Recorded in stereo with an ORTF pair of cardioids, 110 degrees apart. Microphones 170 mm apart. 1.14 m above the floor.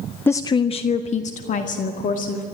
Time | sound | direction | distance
0.3 | a woman speaking | 10° left | 0.5 m